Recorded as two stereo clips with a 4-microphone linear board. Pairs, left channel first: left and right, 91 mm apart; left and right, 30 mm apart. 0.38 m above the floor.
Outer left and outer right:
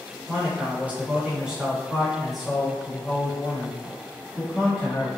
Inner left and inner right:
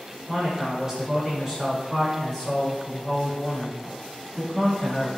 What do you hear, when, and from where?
0.3 s a man speaking: 25° right (ahead or behind), 1.5 m; by 5.1 s 15° left (ahead or behind), 3 m